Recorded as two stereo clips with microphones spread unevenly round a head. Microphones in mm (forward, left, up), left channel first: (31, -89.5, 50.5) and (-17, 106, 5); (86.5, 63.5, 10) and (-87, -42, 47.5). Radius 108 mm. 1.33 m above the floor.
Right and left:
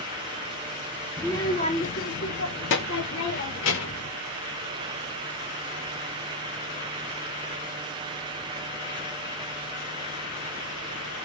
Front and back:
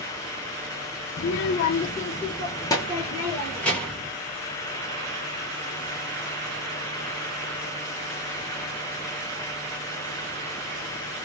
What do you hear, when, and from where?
1.2 s a child speaking: 5° left, 0.5 m; by 4.1 s 55° right, 1.7 m